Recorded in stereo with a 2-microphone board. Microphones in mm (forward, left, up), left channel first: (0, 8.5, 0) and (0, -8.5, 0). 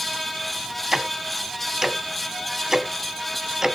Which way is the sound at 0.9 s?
30° right (ahead or behind).